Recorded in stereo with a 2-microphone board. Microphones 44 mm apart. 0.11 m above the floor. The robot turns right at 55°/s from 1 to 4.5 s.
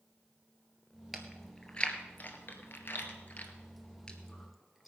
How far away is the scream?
No scream in this recording.